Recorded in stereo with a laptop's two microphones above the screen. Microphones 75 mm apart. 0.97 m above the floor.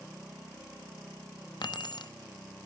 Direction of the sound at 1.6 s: 65° left (ahead or behind).